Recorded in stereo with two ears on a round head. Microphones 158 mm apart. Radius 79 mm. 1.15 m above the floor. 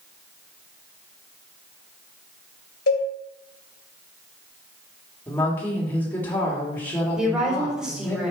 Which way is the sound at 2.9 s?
65° left (ahead or behind).